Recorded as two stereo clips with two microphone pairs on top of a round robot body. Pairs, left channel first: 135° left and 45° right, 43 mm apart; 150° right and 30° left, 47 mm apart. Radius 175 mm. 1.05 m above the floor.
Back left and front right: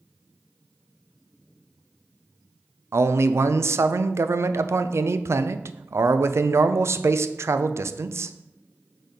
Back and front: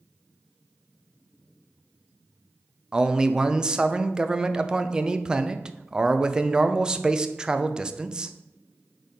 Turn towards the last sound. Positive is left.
turn(degrees=-45)